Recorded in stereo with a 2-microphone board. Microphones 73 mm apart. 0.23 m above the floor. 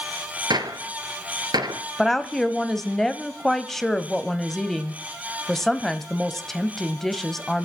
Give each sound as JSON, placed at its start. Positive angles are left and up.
{"t": 0.5, "sound": "a gunshot", "side_deg": -70, "distance_m": 1.3}
{"t": 2.0, "sound": "a woman speaking", "side_deg": 5, "distance_m": 0.9}